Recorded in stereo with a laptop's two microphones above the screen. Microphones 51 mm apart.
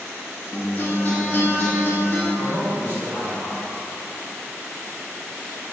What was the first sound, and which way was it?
A guitar, 45° left (ahead or behind).